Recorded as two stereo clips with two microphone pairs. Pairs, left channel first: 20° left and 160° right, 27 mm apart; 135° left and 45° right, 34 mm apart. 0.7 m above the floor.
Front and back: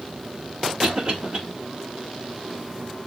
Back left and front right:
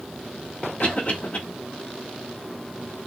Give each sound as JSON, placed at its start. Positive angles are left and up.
{"t": 0.8, "sound": "a cough", "azimuth_deg": 160, "distance_m": 1.4}